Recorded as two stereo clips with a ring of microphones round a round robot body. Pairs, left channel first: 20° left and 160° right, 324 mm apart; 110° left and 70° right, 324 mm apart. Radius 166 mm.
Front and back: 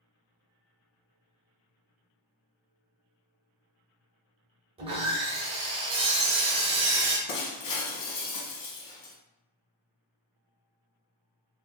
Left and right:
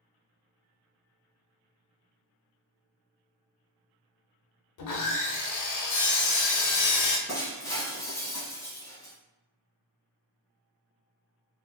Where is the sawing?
130° left, 0.7 m.